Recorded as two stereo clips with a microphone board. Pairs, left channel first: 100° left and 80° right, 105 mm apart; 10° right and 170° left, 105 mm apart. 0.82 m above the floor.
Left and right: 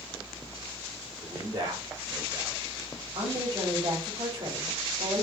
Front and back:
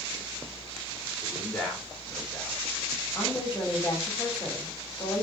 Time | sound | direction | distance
1.2 | a man speaking | 85° right | 2.5 m
3.1 | a woman speaking | 70° right | 3 m